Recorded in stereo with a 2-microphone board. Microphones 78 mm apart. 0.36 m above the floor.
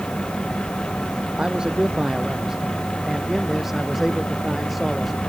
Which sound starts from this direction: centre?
A man speaking, at 1.4 s.